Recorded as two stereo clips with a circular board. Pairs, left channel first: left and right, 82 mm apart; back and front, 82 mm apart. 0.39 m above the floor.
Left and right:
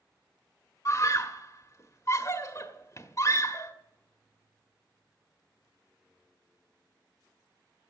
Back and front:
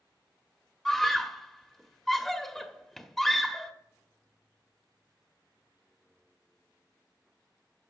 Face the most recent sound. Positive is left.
turn(degrees=95)